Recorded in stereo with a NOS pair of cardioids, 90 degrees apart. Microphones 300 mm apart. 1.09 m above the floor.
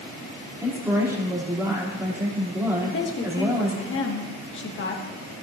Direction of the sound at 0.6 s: 10° right.